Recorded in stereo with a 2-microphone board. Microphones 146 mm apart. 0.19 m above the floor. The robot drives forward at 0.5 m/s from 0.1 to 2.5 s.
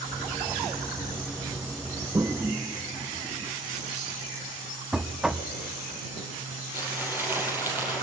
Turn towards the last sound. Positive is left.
turn(degrees=-15)  # may be behind; listen again after turning